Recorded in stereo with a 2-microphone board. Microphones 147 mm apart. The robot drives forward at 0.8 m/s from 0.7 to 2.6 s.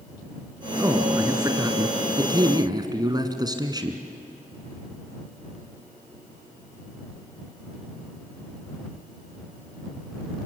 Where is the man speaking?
20° right (ahead or behind), 2 m; by 4.0 s 30° right (ahead or behind), 1.7 m.